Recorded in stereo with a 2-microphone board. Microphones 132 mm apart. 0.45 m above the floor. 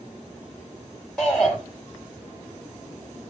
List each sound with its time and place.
1.2 s a shout: 5° left (ahead or behind), 2 m